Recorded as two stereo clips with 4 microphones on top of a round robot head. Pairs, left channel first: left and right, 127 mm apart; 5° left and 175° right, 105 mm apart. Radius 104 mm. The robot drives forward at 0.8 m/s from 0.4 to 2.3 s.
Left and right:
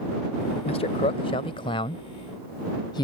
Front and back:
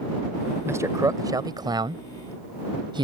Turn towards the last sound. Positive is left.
turn(degrees=145)